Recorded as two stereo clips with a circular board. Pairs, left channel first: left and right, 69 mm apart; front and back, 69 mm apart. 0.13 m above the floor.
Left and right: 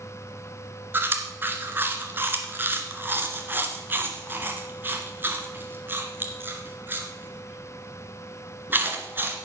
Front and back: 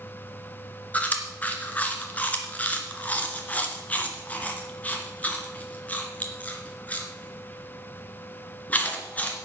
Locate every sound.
0.9 s chewing: 50° right, 2.0 m